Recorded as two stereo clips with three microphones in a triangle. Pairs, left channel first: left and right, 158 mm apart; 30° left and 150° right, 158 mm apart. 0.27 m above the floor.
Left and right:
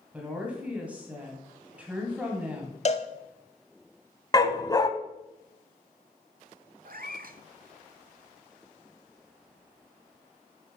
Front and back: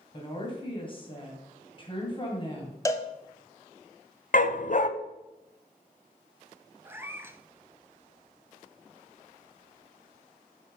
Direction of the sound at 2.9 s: 90° left.